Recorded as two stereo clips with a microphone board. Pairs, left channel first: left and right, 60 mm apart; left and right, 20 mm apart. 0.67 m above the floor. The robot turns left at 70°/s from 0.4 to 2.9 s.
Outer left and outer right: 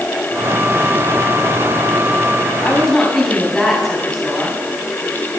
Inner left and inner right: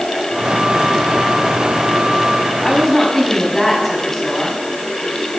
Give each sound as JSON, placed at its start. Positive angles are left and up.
{"t": 2.6, "sound": "a woman speaking", "side_deg": 25, "distance_m": 5.5}